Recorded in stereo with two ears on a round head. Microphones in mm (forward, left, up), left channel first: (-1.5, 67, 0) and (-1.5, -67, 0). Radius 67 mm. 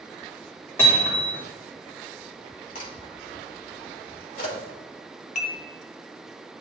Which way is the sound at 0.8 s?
15° left (ahead or behind).